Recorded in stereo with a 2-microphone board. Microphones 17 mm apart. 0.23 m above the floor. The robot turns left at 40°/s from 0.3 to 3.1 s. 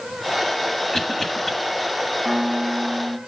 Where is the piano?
10° right, 2.5 m; by 3.2 s 40° right, 2.5 m.